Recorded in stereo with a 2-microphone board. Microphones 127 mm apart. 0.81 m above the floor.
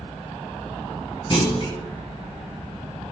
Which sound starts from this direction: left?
A clunk, at 1.3 s.